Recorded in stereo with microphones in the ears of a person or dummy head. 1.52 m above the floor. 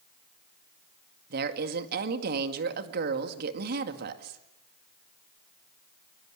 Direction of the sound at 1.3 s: 55° right (ahead or behind).